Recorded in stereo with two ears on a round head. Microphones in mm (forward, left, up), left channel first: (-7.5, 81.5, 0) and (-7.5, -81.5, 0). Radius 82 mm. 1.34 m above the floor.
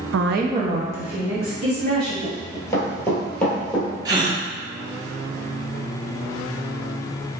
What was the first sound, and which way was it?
A woman speaking, 85° right.